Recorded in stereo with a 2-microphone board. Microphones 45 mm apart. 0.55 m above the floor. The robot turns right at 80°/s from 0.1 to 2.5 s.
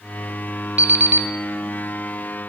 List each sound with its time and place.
0.8 s an alarm clock: 140° right, 0.8 m; by 1.3 s 95° right, 0.8 m